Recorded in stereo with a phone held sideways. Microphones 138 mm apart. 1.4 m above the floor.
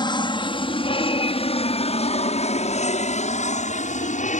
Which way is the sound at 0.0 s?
35° left (ahead or behind).